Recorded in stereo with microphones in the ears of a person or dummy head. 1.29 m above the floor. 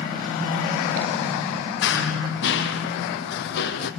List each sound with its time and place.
1.8 s running footsteps: 60° left (ahead or behind), 2.5 m; by 3.9 s 55° left (ahead or behind), 3 m